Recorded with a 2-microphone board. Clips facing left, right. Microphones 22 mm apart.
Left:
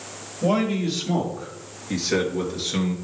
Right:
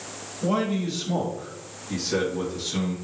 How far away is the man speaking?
About 3.5 m.